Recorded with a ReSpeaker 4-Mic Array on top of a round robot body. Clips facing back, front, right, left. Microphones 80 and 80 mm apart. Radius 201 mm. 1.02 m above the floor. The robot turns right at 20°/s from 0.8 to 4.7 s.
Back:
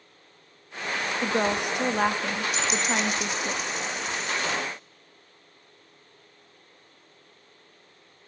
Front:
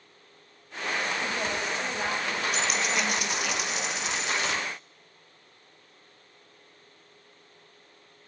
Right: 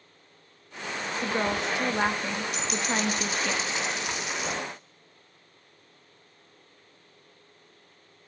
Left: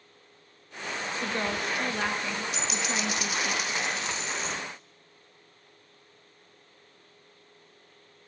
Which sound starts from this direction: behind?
A woman speaking, at 1.2 s.